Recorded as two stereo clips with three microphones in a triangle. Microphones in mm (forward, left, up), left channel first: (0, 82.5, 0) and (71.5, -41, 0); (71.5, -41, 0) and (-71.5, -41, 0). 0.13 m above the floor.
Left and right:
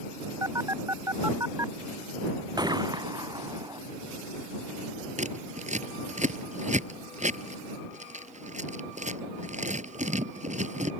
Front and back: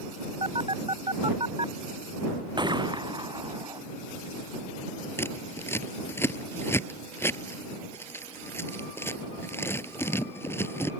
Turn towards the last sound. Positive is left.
turn(degrees=-70)